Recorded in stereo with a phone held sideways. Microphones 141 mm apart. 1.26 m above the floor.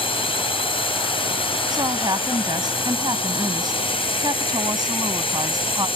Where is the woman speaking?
30° right (ahead or behind).